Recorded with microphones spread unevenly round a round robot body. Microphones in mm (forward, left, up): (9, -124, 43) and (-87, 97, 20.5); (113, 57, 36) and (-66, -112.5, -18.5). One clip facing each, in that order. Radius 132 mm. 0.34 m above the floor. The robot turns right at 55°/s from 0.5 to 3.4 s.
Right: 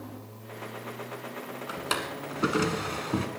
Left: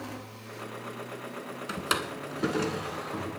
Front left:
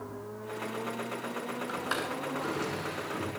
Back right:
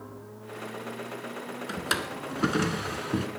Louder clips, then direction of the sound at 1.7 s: Left 1 dB, back right 1 dB; 170° left.